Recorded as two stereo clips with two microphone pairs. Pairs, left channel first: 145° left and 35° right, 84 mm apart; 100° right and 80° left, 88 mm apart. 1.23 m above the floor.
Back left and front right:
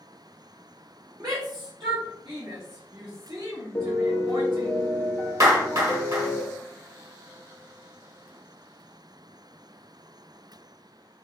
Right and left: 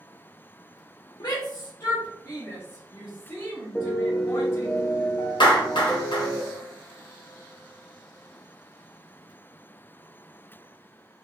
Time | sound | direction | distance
1.2 | a shout | 65° right | 0.5 m
3.8 | a piano | 155° right | 0.8 m
5.4 | a clap | 80° right | 0.9 m